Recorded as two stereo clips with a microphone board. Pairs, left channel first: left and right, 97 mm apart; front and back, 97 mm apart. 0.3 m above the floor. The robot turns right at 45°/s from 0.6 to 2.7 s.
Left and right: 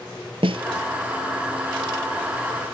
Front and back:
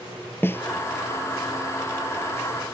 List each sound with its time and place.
0.4 s a snare drum: 65° right